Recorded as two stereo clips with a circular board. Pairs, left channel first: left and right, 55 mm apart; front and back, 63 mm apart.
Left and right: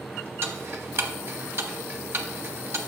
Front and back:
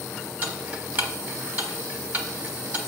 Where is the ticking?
120° right, 1.1 m.